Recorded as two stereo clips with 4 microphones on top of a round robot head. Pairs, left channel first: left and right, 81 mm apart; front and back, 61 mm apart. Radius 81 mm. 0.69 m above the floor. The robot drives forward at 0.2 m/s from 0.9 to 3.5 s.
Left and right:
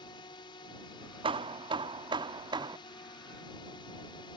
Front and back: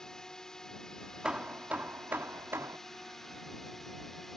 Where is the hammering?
100° right; by 2.8 s 125° right.